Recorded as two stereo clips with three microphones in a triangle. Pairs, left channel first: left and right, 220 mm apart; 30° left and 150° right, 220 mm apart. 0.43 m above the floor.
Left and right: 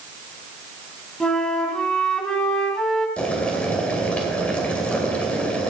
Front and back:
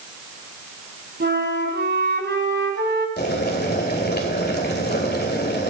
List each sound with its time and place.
1.2 s a flute: 175° left, 1.8 m
3.2 s boiling: 5° left, 2.5 m